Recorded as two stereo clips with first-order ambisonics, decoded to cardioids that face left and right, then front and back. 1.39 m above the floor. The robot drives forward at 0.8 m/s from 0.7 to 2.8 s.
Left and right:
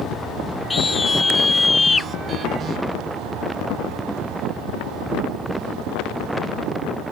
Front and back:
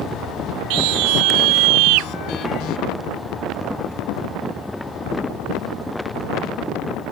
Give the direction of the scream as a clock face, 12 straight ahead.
6 o'clock.